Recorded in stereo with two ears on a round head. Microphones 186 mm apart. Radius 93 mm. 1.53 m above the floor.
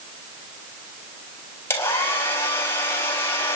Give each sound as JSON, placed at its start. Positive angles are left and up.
{"t": 1.7, "sound": "a hair dryer", "side_deg": 10, "distance_m": 4.0}